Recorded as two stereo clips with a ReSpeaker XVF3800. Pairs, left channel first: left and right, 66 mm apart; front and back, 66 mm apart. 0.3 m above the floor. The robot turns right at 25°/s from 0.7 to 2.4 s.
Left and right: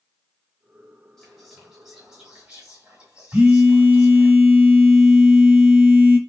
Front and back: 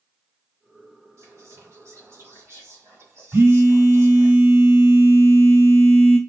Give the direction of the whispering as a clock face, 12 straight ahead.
6 o'clock.